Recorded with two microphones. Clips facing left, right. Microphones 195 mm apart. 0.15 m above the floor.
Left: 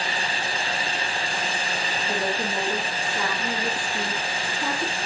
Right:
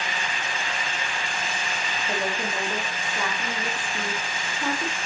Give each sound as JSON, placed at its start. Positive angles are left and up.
{"t": 2.1, "sound": "a woman speaking", "side_deg": -5, "distance_m": 2.5}